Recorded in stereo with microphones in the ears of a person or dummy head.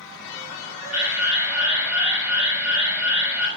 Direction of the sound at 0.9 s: 5° right (ahead or behind).